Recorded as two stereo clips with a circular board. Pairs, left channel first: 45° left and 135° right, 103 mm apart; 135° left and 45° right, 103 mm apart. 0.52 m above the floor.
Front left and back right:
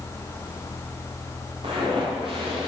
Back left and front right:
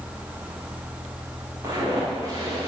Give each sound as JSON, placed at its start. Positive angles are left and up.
{"t": 1.6, "sound": "footsteps", "azimuth_deg": -105, "distance_m": 6.5}